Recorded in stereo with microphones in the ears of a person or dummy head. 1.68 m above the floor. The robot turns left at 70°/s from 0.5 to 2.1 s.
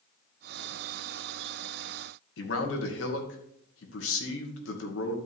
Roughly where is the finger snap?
I don't hear a finger snap.